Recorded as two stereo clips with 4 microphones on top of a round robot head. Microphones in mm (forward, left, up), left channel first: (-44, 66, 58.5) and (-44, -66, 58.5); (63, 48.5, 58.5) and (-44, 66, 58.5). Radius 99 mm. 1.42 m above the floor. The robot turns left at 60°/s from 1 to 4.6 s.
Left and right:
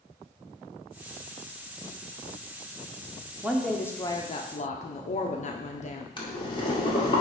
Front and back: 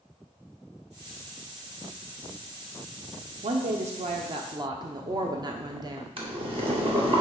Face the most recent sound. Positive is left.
turn(degrees=140)